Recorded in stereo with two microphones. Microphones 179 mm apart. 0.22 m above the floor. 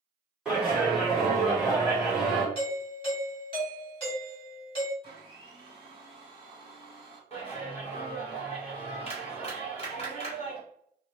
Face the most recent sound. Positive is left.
turn(degrees=35)  # may be behind; listen again after turning